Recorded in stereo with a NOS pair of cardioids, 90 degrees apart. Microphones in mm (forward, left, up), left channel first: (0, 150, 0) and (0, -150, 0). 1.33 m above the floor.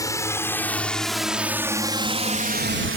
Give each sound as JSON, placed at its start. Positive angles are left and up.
{"t": 0.0, "sound": "a drone", "azimuth_deg": 10}